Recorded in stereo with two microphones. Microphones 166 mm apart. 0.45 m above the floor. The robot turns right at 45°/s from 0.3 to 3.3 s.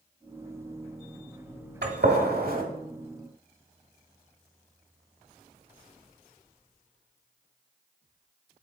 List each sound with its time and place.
1.8 s a gunshot: 80° right, 1.1 m; by 2.6 s 55° right (ahead or behind), 1.1 m